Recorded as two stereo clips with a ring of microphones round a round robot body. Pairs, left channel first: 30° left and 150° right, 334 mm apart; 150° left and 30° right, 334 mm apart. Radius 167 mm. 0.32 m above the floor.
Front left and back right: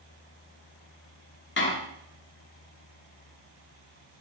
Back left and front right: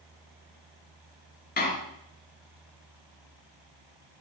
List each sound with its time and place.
1.6 s a door slam: 85° left, 3.5 m